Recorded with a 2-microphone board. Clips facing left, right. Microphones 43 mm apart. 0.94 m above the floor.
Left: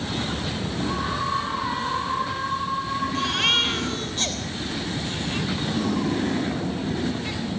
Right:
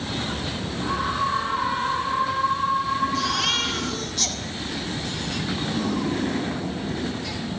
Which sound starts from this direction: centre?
A scream, at 0.8 s.